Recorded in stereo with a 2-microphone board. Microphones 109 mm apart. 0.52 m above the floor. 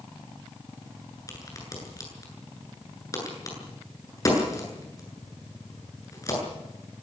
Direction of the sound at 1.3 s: 30° left (ahead or behind).